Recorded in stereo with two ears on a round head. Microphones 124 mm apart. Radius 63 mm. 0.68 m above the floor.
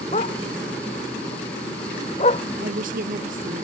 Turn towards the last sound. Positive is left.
turn(degrees=-70)  # may be behind; listen again after turning